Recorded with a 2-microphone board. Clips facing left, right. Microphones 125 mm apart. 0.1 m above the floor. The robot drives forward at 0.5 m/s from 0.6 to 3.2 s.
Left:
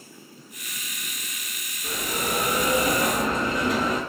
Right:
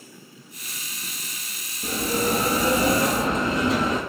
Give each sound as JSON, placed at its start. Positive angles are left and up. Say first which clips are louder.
{"t": 1.8, "sound": "a bell", "louder": "right 5 dB", "side_deg": -50, "distance_m": 0.5}